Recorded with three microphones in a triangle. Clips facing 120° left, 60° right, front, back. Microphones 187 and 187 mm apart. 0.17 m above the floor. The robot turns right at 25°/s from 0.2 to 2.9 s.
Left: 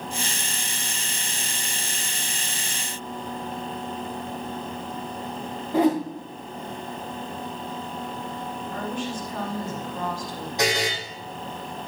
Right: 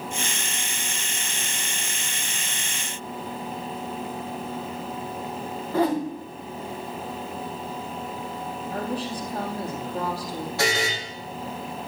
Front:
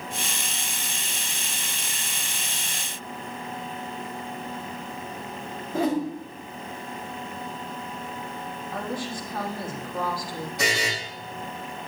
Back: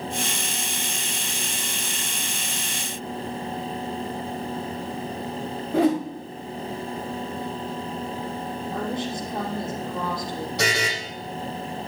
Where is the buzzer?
170° right, 8.5 m.